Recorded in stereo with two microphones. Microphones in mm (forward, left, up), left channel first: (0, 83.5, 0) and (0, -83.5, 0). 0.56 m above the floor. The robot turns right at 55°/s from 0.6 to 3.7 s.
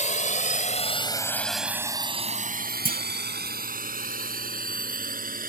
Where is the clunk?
55° right (ahead or behind); by 3.0 s 65° right (ahead or behind).